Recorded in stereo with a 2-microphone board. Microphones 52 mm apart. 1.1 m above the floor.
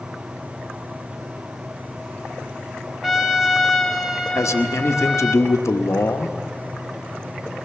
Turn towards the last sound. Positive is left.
turn(degrees=75)  # may be behind; listen again after turning